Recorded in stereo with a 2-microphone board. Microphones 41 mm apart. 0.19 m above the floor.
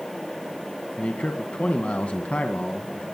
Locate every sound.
1.0 s a man speaking: 35° left (ahead or behind), 1.8 m